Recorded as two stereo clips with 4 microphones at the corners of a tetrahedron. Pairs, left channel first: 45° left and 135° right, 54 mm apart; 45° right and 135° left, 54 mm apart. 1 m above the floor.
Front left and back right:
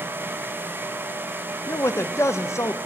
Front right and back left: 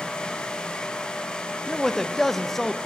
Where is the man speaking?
40° left, 0.6 m.